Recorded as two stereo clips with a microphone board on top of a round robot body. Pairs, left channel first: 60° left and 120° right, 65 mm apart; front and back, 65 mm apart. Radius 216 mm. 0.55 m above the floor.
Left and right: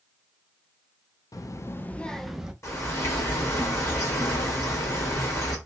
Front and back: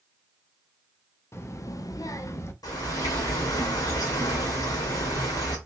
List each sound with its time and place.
1.3 s a child speaking: 45° left, 0.8 m; by 2.5 s 40° right, 0.9 m
2.6 s a bird: 15° left, 1.7 m